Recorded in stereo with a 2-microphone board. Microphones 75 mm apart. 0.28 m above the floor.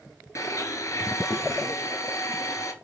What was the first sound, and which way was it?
A blender, 45° left (ahead or behind).